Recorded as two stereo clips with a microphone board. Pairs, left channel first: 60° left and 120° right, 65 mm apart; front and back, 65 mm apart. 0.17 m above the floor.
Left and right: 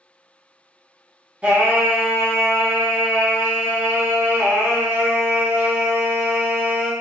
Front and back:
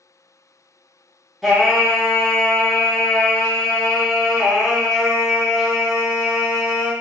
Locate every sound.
1.4 s singing: 100° right, 0.8 m